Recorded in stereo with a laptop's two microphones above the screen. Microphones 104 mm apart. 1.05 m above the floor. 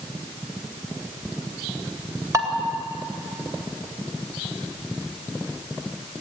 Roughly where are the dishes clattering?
Right.